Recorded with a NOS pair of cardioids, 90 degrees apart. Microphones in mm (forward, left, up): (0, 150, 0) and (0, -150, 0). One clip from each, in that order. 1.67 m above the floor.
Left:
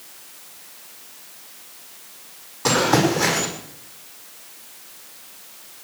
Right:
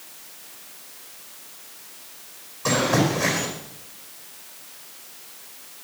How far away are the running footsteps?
About 5.5 m.